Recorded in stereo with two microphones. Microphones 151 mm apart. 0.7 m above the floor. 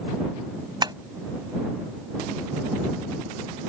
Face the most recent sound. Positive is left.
turn(degrees=-30)  # may be behind; listen again after turning